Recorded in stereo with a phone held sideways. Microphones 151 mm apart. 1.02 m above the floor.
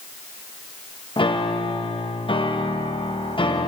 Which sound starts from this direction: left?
A piano, at 1.2 s.